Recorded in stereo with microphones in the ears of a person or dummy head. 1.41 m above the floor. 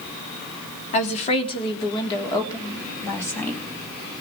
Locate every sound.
0.9 s a woman speaking: 40° left (ahead or behind), 3 m; by 3.6 s 15° left (ahead or behind), 3.5 m